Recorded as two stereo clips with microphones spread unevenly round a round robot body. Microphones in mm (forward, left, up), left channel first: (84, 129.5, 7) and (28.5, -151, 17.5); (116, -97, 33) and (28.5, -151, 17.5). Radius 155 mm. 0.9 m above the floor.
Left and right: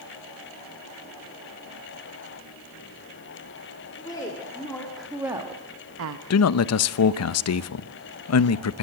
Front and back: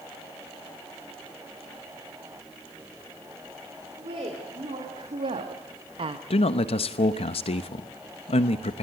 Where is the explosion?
No explosion in this recording.